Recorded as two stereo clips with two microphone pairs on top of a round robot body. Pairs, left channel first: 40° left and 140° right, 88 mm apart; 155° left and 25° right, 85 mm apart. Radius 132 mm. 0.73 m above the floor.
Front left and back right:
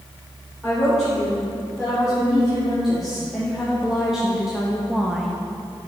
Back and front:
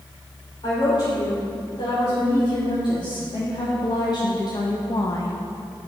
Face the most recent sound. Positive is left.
turn(degrees=140)